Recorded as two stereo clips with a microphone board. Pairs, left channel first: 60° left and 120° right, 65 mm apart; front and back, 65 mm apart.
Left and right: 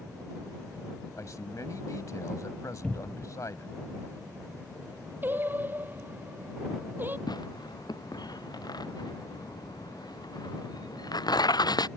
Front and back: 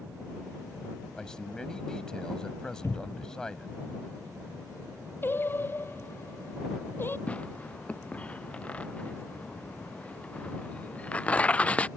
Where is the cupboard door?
5° right.